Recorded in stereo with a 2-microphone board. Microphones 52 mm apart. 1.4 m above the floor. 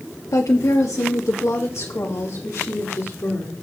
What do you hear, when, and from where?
0.3 s a woman speaking: 80° left, 1.0 m; by 3.5 s 60° left (ahead or behind), 3.5 m